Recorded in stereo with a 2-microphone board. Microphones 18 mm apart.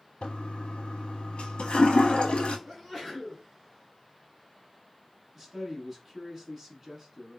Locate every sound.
0.2 s a toilet flushing: 80° left, 0.6 m
2.7 s a sneeze: 15° right (ahead or behind), 2 m
5.3 s a man speaking: 30° right (ahead or behind), 1.2 m